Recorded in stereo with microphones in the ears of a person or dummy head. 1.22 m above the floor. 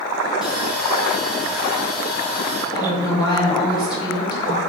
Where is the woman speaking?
20° left (ahead or behind), 1.4 m.